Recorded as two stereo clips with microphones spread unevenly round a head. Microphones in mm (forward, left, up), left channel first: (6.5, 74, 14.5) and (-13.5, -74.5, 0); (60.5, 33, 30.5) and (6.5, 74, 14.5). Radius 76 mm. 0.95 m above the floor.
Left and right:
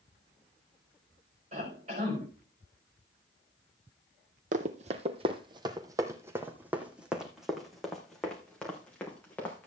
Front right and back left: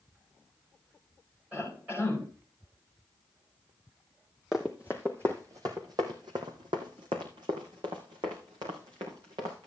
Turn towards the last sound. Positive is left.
turn(degrees=160)